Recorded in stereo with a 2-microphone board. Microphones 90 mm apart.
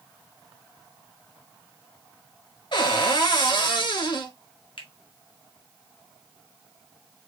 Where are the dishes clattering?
No dishes clattering in this recording.